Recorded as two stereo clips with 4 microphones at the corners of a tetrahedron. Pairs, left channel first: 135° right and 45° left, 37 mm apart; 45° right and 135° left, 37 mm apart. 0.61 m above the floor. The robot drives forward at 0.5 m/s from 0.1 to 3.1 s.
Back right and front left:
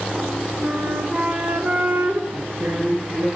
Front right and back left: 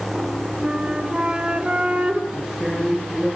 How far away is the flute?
About 3 m.